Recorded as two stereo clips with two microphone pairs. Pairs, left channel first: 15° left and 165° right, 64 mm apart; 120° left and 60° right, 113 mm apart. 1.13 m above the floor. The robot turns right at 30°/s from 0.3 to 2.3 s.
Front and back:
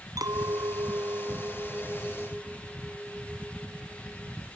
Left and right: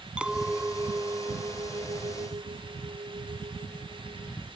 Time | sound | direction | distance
0.2 | a clink | 145° right | ?